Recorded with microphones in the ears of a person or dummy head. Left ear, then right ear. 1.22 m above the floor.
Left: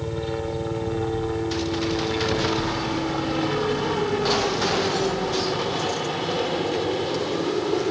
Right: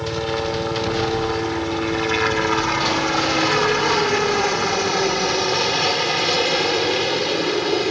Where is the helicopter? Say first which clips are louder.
Right 5 dB; 50° right (ahead or behind); by 7.9 s 65° right (ahead or behind).